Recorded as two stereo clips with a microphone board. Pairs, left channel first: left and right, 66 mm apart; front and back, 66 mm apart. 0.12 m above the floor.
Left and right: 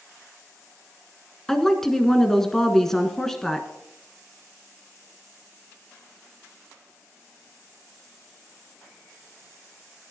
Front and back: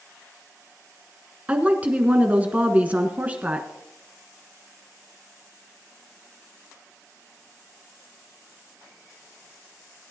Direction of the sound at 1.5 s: 165° left.